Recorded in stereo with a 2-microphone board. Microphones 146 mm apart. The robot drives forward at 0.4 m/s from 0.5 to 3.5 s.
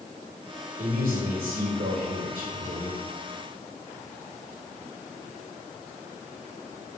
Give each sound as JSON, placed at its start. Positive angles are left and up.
{"t": 0.8, "sound": "a man speaking", "side_deg": -80, "distance_m": 2.0}